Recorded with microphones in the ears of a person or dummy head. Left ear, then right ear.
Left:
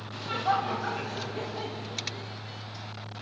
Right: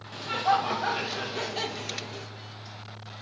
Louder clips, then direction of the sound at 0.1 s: Right 3 dB; 10° right (ahead or behind).